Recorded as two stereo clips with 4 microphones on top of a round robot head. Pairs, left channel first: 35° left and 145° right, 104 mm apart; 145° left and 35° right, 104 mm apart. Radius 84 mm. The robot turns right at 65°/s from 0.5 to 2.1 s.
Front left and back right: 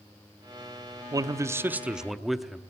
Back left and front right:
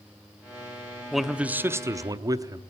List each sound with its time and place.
1.1 s a man speaking: 125° right, 0.8 m; by 2.6 s 60° right, 0.8 m